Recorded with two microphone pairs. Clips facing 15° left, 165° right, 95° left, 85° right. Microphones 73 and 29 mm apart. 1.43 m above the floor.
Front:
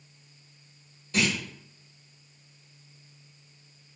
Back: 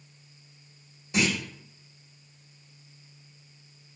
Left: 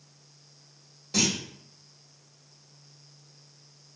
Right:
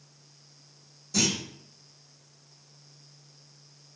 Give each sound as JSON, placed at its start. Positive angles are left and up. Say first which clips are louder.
{"t": 1.1, "sound": "a clunk", "louder": "back 1 dB, left 1 dB", "azimuth_deg": 125, "distance_m": 1.1}